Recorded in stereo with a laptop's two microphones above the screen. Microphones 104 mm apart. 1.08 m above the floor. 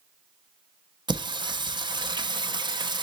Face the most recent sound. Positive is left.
turn(degrees=-45)  # may be behind; listen again after turning